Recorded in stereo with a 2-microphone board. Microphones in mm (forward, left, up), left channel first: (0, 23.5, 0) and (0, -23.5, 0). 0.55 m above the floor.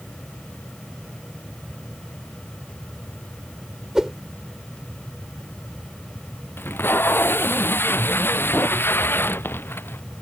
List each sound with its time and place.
4.0 s a whoosh: 10° right (ahead or behind)
6.6 s tape being pulled: 50° left (ahead or behind)